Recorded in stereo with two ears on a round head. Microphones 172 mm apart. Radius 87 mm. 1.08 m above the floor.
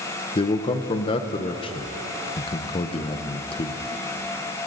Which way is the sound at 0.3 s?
30° left (ahead or behind).